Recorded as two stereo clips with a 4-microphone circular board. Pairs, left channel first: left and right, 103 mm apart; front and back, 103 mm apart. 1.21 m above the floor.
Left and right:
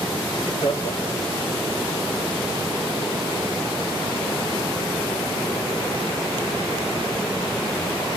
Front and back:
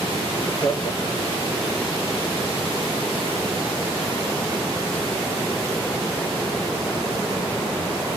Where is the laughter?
45° left, 2.5 m; by 1.6 s 55° left, 4 m.